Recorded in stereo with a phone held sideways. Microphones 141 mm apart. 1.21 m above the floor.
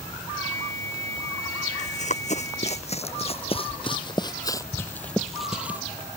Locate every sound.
0.4 s a flute: 15° left (ahead or behind)
1.8 s running footsteps: 55° left (ahead or behind); by 5.8 s 15° right (ahead or behind)